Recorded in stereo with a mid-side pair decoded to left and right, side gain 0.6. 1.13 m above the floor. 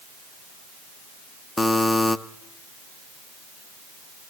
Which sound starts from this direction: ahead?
A buzzer, at 1.6 s.